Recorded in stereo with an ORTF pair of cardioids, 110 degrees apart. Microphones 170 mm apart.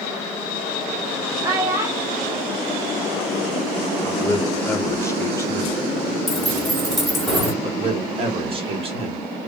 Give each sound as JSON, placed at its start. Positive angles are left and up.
{"t": 1.4, "sound": "a child speaking", "azimuth_deg": -20, "distance_m": 1.5}
{"t": 4.0, "sound": "a man speaking", "azimuth_deg": 15, "distance_m": 0.8}
{"t": 6.3, "sound": "keys jangling", "azimuth_deg": 0, "distance_m": 1.5}
{"t": 7.6, "sound": "a man speaking", "azimuth_deg": -35, "distance_m": 1.4}